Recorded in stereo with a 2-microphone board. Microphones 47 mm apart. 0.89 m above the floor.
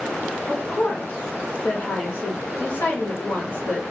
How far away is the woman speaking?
About 1.4 m.